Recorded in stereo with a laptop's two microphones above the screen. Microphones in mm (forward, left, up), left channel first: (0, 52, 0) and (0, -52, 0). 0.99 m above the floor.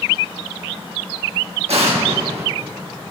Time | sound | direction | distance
1.7 | an explosion | 75° right (ahead or behind) | 1.5 m